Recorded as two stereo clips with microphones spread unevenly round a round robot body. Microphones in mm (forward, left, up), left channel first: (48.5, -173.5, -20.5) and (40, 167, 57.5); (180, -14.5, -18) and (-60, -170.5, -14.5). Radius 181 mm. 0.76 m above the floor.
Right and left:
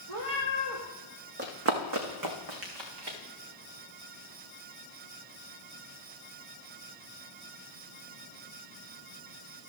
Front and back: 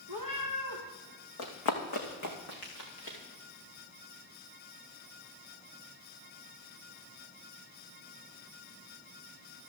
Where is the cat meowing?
55° left, 4.5 m.